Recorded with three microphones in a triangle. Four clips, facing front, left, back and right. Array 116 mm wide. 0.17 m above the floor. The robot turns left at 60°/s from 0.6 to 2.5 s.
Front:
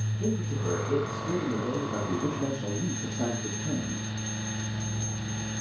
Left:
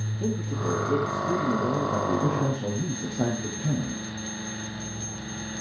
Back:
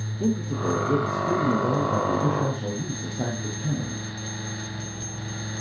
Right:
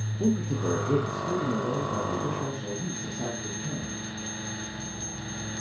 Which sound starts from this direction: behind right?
A man speaking, at 0.2 s.